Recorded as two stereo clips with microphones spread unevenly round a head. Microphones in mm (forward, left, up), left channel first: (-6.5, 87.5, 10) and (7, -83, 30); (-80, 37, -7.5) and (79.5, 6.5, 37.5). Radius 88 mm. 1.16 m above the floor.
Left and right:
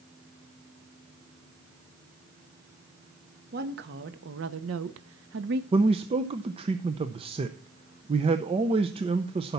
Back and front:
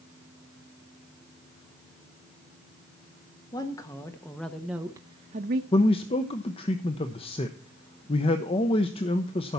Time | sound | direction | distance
3.5 | a woman speaking | 120° right | 1.2 m
5.7 | a man speaking | 145° right | 0.7 m